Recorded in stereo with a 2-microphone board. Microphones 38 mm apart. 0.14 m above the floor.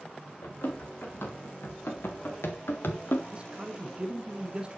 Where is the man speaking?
25° right (ahead or behind), 1.3 m.